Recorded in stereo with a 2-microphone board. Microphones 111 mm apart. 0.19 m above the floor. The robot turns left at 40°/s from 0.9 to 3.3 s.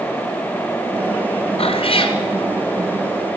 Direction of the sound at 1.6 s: 60° left (ahead or behind).